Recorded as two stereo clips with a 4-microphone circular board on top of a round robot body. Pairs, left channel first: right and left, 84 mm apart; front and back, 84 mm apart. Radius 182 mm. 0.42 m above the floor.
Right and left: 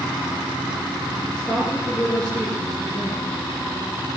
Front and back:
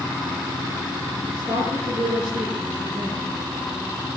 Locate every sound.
1.3 s a woman speaking: 165° right, 7.5 m